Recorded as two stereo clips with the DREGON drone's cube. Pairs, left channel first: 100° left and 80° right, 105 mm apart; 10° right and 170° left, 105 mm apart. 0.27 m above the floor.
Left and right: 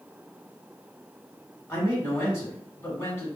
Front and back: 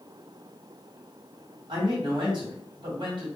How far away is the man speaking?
About 2 m.